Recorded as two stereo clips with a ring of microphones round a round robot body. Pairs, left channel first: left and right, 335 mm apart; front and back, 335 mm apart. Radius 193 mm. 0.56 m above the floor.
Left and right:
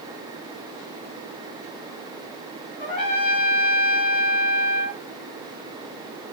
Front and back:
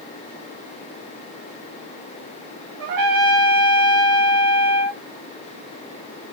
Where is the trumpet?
150° left, 0.8 m.